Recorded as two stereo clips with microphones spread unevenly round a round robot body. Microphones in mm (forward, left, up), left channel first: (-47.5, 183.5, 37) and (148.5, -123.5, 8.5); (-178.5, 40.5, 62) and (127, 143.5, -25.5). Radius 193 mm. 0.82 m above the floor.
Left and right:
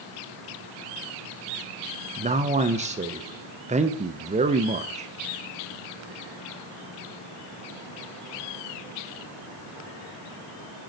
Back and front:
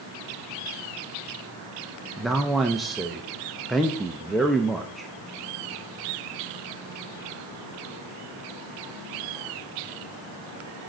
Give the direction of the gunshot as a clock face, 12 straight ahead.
No gunshot in this recording.